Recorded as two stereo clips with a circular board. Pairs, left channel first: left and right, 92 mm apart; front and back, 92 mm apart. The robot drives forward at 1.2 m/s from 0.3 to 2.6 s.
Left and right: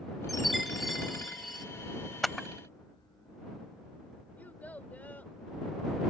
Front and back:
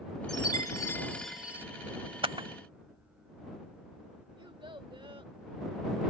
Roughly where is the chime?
Ahead.